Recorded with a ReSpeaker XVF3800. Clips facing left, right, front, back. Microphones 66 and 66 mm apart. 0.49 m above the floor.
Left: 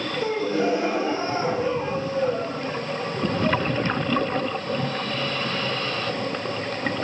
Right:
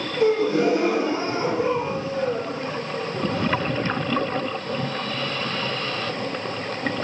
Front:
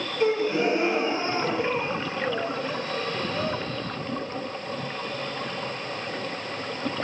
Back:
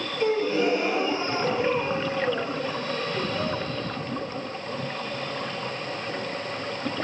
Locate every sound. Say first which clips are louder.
0.2 s a gasp: right 5 dB, even; 60° right, 3.5 m